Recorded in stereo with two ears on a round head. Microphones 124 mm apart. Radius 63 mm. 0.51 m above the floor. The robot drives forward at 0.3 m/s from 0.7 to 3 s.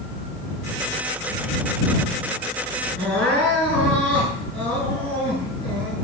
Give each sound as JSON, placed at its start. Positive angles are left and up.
{"t": 3.0, "sound": "crying", "side_deg": 10, "distance_m": 8.5}